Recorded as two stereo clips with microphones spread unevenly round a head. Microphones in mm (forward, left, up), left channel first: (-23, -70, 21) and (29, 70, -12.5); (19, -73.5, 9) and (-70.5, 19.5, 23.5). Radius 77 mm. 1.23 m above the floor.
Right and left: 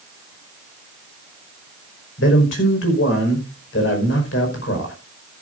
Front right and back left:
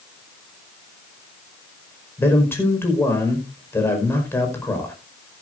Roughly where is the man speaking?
Behind right.